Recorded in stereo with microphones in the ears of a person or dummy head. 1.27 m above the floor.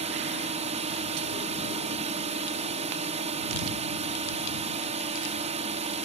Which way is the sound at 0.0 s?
35° right (ahead or behind).